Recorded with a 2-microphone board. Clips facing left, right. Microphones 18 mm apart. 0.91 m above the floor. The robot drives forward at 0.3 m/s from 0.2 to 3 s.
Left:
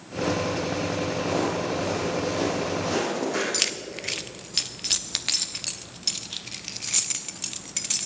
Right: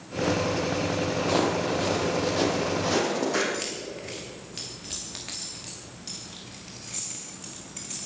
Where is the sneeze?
I don't hear a sneeze.